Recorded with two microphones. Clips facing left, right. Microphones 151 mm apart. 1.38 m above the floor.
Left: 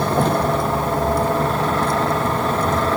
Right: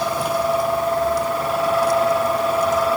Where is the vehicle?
55° left (ahead or behind).